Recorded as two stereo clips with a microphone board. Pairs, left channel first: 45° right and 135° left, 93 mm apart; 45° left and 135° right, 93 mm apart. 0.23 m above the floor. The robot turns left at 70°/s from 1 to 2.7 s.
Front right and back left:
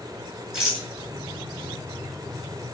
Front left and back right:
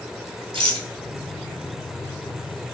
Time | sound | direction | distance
0.5 | a rattle | 145° right | 1.0 m